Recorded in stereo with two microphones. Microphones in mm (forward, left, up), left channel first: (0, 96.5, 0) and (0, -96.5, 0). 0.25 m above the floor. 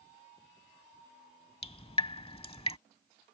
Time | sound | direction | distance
1.6 | dripping | 30° left (ahead or behind) | ?